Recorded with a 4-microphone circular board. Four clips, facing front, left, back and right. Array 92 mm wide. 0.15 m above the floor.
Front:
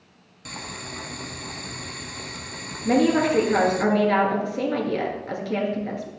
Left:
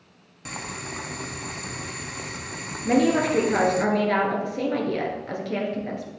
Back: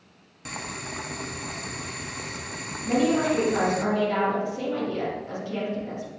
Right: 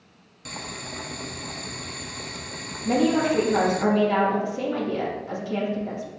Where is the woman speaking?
40° left, 2.5 m.